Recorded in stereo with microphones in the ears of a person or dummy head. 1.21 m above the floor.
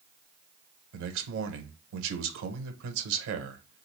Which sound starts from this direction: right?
A man speaking, at 0.9 s.